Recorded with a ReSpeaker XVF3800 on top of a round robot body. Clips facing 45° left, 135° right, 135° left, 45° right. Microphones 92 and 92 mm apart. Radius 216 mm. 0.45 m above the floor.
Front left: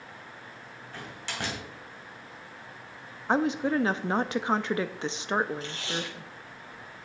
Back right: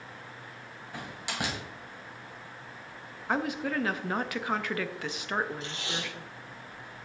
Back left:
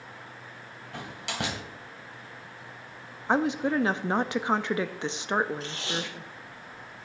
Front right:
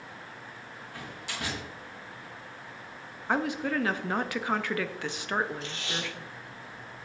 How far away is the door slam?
About 2.5 m.